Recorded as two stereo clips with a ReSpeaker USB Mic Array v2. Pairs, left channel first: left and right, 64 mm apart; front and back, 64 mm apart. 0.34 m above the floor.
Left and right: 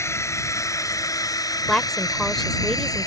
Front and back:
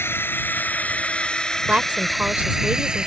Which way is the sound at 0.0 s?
50° left.